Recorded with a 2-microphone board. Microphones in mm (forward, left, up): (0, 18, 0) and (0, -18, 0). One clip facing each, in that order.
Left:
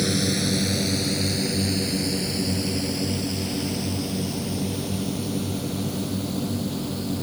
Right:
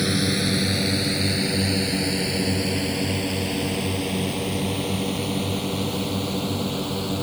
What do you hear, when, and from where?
0.0 s a drone: 25° right (ahead or behind); by 7.2 s 55° right (ahead or behind)